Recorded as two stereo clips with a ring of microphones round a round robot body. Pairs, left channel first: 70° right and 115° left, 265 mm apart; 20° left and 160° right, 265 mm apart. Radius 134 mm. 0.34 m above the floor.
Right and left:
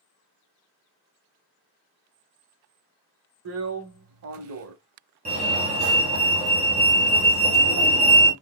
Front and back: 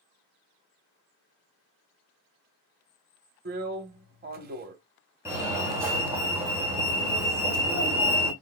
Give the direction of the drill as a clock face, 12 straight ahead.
7 o'clock.